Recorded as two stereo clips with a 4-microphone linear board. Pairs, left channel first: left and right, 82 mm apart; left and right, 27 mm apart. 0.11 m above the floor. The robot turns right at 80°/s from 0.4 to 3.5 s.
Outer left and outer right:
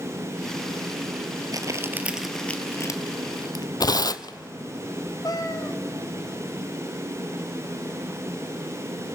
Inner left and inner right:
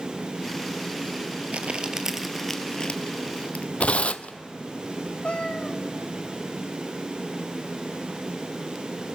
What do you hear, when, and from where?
1.5 s crumpling: 50° right (ahead or behind), 1.2 m; by 3.6 s 60° left (ahead or behind), 1.2 m
3.8 s tearing paper: 55° left (ahead or behind), 0.5 m
5.2 s a cat meowing: 50° left (ahead or behind), 1.3 m